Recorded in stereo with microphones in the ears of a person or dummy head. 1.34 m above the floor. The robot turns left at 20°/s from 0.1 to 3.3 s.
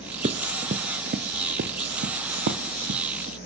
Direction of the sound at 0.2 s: 20° right (ahead or behind).